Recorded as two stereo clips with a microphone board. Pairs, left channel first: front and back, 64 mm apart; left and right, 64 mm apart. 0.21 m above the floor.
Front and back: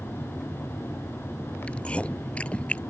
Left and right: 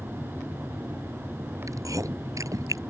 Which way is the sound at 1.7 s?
70° right.